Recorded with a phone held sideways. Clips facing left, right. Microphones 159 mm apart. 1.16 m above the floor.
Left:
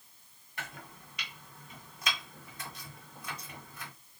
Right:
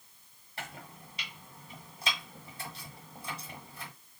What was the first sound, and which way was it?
Chopping, 35° right (ahead or behind).